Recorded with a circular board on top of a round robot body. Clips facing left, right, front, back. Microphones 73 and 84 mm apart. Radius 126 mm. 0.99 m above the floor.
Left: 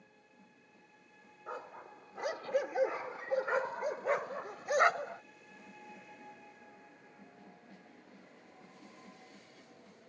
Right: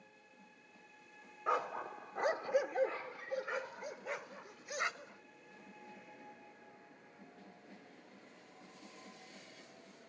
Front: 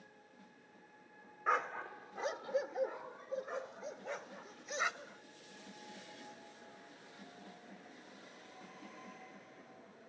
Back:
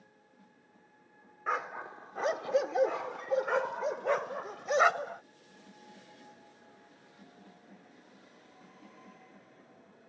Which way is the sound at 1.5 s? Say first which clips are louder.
Right 9 dB, back 1 dB; 90° right.